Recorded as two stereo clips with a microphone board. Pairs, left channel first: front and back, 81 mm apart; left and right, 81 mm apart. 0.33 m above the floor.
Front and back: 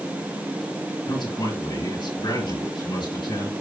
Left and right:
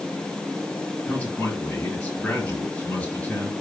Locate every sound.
1.1 s a man speaking: 15° left, 7 m